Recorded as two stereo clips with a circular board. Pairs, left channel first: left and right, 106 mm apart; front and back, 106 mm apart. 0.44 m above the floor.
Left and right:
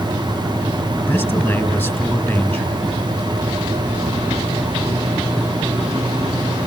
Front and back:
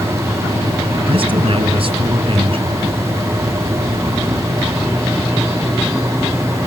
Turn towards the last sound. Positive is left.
turn(degrees=155)